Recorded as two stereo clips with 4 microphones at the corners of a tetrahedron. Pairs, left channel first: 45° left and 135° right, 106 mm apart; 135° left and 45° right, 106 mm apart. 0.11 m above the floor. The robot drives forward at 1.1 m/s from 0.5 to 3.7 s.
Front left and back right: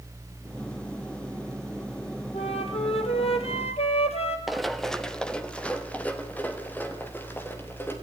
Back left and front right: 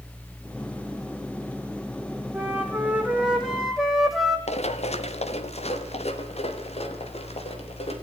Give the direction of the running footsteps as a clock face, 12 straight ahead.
7 o'clock.